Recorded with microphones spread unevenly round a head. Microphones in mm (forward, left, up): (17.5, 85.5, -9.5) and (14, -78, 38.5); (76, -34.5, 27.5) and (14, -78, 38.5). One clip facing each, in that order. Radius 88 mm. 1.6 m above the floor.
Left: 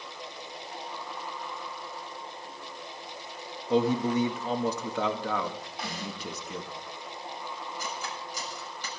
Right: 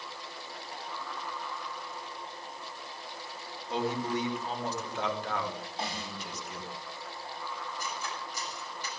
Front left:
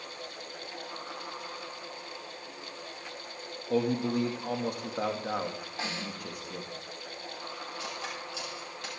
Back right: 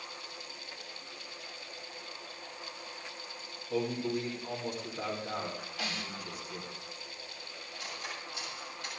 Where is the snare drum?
25° right, 4.5 m.